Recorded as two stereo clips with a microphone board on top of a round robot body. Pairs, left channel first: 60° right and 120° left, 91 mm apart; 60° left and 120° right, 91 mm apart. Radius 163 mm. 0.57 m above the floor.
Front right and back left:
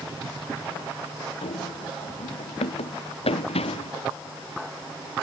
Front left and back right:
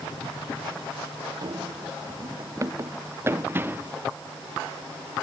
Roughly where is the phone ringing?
I don't hear a phone ringing.